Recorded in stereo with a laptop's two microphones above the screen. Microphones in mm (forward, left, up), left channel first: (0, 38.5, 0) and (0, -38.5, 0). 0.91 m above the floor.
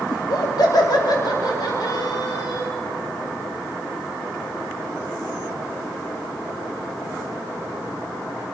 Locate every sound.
0.1 s laughter: 60° left (ahead or behind), 2 m; by 2.7 s 55° left (ahead or behind), 3.5 m